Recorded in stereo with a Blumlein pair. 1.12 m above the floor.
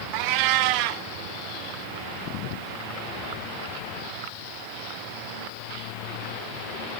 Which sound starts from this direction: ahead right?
A cat meowing, at 0.1 s.